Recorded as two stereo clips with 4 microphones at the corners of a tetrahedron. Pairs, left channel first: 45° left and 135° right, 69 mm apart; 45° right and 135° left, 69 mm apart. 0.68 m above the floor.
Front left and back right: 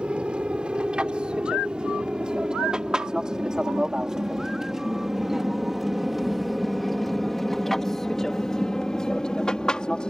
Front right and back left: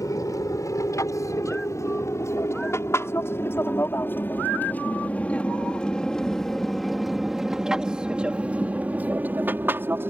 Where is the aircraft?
60° right; by 10.1 s 115° left.